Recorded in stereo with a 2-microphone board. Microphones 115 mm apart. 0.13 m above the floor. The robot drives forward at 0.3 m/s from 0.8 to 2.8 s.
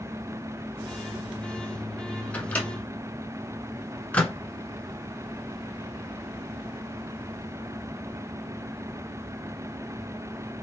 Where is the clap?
No clap in this recording.